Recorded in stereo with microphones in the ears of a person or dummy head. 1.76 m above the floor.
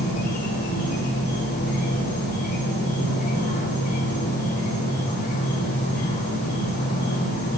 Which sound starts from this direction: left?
An insect, at 0.0 s.